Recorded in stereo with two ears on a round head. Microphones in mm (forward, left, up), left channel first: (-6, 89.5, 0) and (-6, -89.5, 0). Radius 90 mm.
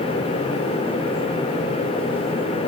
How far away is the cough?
No cough in this recording.